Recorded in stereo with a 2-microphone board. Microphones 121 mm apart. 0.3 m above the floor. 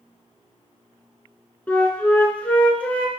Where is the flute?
10° left (ahead or behind), 1.7 m.